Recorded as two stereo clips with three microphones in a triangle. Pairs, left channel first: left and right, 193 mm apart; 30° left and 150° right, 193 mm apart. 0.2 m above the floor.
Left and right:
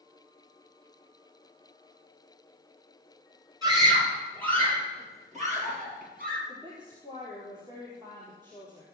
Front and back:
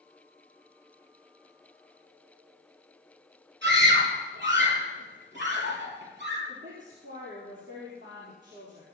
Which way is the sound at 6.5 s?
160° right.